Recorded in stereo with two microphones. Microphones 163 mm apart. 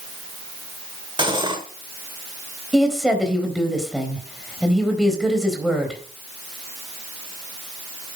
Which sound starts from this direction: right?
Cutlery clinking, at 1.2 s.